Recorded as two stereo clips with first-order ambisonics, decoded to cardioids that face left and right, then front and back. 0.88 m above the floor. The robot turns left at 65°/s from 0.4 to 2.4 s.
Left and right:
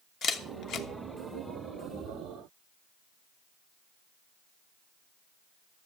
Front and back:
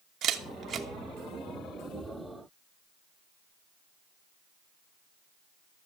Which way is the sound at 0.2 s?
140° left.